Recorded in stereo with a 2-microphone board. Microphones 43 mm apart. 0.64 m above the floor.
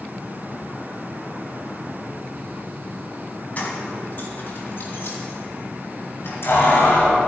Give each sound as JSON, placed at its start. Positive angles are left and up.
{"t": 3.6, "sound": "keys jangling", "side_deg": 35, "distance_m": 3.5}